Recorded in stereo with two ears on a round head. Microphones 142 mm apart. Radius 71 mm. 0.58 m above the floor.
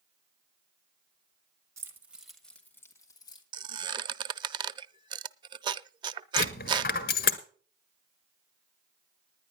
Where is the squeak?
30° right (ahead or behind), 0.5 m.